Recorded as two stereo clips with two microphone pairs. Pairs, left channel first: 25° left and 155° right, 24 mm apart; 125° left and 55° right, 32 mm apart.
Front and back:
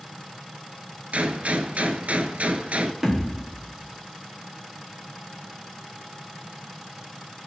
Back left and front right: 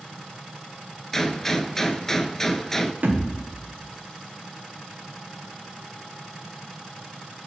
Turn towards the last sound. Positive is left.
turn(degrees=-90)